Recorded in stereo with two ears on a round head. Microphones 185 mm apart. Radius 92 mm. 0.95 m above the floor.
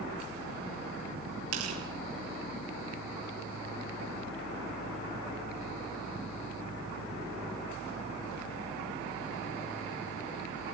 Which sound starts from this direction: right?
Tearing paper, at 1.5 s.